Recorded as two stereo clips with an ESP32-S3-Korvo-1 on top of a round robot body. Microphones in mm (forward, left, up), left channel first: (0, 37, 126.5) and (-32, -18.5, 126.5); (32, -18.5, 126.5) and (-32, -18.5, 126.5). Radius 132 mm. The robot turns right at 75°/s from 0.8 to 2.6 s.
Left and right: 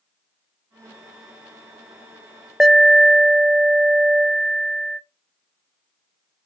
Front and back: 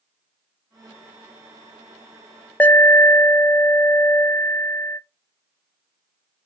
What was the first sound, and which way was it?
An alarm, 40° right.